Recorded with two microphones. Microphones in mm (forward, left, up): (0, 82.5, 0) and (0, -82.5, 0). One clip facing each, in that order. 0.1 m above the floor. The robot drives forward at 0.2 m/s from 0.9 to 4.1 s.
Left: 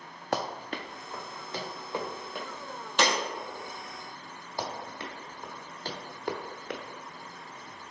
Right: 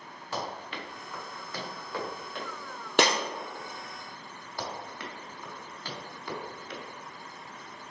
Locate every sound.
0.3 s running footsteps: 60° left (ahead or behind), 0.6 m; by 2.5 s 15° left (ahead or behind), 2.5 m
3.0 s breaking glass: 65° right (ahead or behind), 1.6 m
4.6 s running footsteps: 20° left (ahead or behind), 1.7 m; by 6.8 s 65° left (ahead or behind), 0.9 m